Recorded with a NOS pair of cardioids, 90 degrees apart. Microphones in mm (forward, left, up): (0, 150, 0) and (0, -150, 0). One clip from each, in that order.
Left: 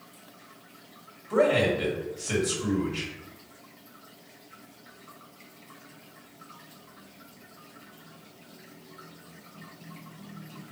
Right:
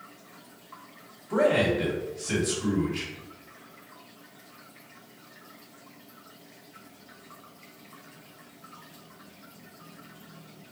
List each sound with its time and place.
1.3 s a man speaking: 5° left, 1.9 m